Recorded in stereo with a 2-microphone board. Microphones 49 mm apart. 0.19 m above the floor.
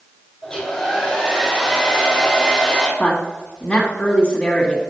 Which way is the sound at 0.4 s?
10° left (ahead or behind).